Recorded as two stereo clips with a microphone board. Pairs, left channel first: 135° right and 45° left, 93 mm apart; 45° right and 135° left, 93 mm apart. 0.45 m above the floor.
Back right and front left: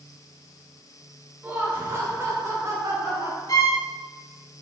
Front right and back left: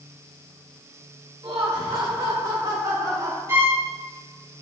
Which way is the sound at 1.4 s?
110° left.